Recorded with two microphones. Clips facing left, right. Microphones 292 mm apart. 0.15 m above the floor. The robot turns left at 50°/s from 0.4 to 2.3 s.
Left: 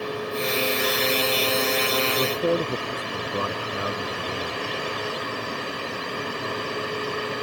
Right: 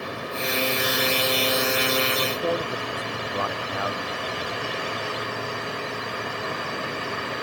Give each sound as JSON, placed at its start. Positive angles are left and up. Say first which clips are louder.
{"t": 2.2, "sound": "a man speaking", "louder": "left 3 dB", "side_deg": 40}